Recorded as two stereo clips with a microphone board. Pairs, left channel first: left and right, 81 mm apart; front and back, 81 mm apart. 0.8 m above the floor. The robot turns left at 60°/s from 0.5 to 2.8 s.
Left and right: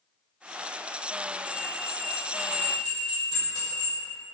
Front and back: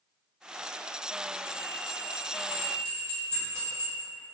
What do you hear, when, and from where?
1.4 s a bell: 155° right, 2.0 m; by 4.0 s 125° left, 2.0 m